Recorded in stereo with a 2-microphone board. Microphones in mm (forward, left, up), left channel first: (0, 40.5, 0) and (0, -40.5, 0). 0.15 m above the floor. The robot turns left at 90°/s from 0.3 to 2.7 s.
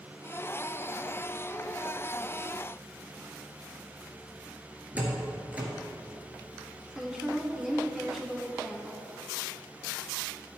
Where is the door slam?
20° right (ahead or behind), 2 m.